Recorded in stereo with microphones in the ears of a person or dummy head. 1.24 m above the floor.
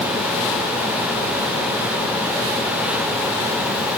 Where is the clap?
No clap in this recording.